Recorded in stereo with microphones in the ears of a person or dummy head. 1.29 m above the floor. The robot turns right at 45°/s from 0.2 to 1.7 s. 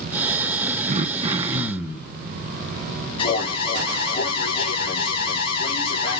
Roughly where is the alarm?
Left.